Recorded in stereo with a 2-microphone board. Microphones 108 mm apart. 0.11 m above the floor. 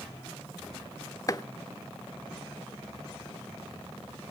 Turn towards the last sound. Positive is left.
turn(degrees=30)  # may be behind; listen again after turning